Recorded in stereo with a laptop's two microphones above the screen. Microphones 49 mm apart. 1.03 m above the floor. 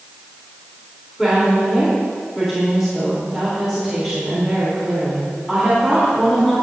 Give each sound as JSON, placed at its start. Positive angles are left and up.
{"t": 1.2, "sound": "a woman speaking", "side_deg": -5, "distance_m": 3.0}